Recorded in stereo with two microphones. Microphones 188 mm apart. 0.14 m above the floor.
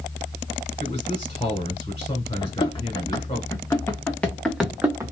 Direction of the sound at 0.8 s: 30° left (ahead or behind).